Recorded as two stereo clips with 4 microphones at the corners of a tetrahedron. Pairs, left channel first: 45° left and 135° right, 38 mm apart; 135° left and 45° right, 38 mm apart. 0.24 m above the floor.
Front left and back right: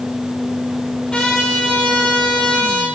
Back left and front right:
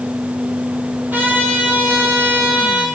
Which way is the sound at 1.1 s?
20° right.